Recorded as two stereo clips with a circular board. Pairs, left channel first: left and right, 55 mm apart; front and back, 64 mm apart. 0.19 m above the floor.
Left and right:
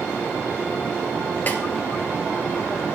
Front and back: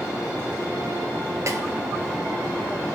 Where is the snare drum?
140° left, 1.5 m.